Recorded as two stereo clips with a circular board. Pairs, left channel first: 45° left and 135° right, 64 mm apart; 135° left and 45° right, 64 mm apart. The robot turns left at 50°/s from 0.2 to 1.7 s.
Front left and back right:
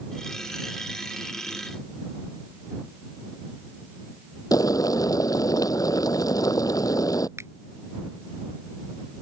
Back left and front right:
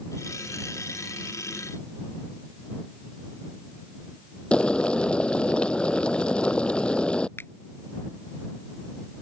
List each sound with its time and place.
4.5 s boiling: 60° left
7.4 s a finger snap: 175° right